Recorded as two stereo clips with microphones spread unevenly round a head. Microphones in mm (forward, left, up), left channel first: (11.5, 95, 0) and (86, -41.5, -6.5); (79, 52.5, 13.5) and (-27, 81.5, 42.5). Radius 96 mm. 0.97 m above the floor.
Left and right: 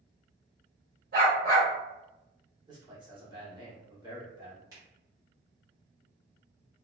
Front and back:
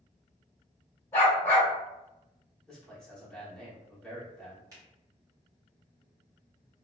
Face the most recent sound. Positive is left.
turn(degrees=-125)